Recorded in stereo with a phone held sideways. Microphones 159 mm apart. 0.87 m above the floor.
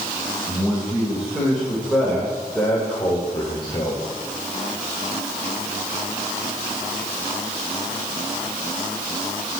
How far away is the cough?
No cough in this recording.